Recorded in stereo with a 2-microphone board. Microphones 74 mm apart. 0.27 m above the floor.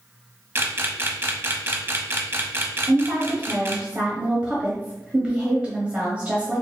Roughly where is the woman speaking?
Centre.